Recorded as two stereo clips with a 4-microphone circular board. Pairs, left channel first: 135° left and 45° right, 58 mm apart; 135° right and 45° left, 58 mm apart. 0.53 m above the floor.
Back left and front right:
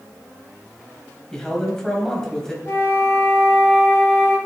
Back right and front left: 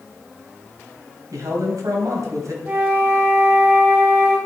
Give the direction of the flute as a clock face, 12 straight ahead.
9 o'clock.